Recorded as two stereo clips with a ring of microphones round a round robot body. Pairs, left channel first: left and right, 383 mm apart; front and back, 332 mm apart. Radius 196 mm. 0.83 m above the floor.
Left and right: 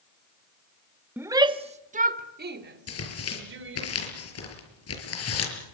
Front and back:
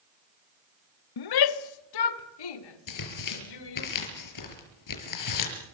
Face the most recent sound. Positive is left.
turn(degrees=35)